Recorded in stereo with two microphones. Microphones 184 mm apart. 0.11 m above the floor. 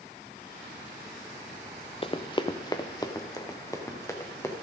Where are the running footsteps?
30° left (ahead or behind), 0.7 m; by 4.5 s 15° left (ahead or behind), 2.5 m.